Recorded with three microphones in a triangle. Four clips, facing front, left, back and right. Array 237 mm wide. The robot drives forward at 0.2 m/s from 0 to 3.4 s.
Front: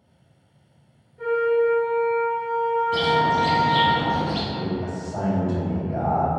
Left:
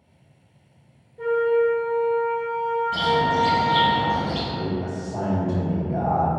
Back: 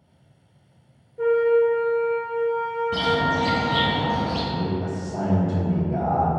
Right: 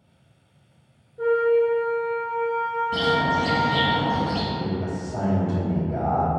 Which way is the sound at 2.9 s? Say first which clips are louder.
Left 1 dB, even; 150° right.